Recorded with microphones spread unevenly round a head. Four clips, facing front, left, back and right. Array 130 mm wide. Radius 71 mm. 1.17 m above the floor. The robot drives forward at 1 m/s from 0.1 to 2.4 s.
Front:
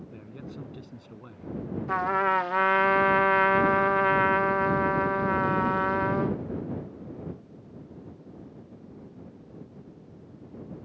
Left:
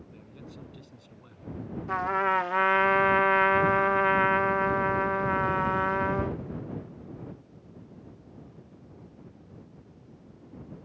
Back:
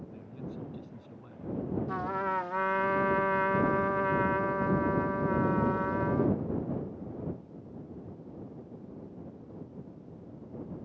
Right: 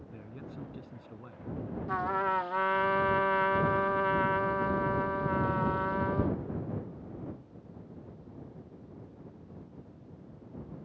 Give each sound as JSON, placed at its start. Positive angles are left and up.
{"t": 0.1, "sound": "a man speaking", "azimuth_deg": -15}
{"t": 1.9, "sound": "a trumpet", "azimuth_deg": 25}